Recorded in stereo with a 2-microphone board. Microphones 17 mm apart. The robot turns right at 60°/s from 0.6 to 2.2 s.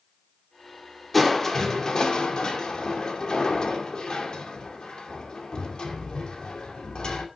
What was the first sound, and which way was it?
Crushing, 10° left.